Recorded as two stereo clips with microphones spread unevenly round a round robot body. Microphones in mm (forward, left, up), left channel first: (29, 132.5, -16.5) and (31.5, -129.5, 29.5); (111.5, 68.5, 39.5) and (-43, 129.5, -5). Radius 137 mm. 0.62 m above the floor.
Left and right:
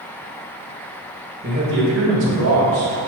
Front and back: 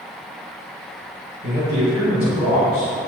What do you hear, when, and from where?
1.4 s a man speaking: 155° right, 3 m; by 2.9 s 130° right, 3.5 m